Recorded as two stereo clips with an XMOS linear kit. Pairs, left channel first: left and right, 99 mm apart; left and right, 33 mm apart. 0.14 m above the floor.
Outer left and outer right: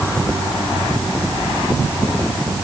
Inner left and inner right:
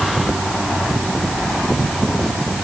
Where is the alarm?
No alarm in this recording.